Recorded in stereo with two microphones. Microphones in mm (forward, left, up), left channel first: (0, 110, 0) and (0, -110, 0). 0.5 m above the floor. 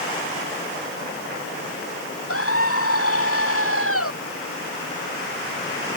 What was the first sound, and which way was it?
A scream, 85° left.